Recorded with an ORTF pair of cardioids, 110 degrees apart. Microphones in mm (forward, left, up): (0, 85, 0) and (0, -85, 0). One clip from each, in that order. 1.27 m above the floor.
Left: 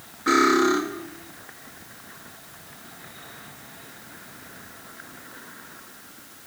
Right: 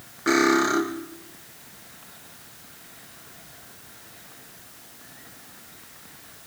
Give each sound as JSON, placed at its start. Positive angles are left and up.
{"t": 0.3, "sound": "cutlery clinking", "azimuth_deg": -30, "distance_m": 5.0}